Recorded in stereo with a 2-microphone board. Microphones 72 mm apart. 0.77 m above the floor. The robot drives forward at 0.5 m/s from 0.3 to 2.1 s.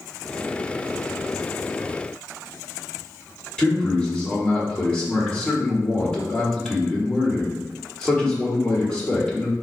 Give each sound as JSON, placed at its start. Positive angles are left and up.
{"t": 3.6, "sound": "a man speaking", "side_deg": 15, "distance_m": 1.5}